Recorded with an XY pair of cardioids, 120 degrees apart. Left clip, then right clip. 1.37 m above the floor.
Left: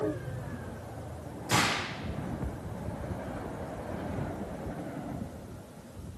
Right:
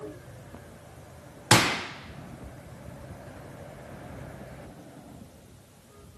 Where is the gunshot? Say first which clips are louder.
Right 5 dB; 70° right, 1.2 m.